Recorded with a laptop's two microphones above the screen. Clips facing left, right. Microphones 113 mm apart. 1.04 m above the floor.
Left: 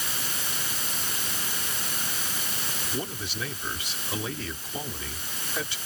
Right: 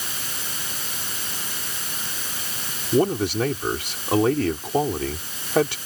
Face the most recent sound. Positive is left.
turn(degrees=-65)  # may be behind; listen again after turning